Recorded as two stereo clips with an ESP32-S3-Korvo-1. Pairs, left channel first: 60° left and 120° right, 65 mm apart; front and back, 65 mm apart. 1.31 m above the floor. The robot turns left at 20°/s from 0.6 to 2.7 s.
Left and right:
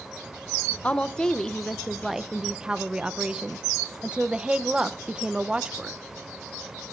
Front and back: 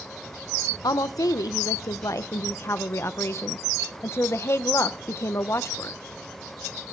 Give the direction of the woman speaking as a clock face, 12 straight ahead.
12 o'clock.